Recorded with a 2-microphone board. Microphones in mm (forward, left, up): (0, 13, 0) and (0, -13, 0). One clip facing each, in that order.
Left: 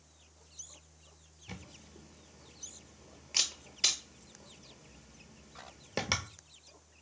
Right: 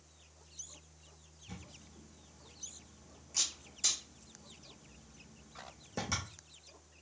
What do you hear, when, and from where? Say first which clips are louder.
1.5 s a camera shutter: left 3 dB; 60° left (ahead or behind), 0.8 m